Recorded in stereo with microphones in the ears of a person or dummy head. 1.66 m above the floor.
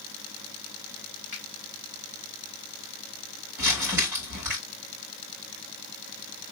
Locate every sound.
1.3 s a finger snap: 40° left (ahead or behind), 1.8 m
3.6 s crumpling: 10° right (ahead or behind), 3 m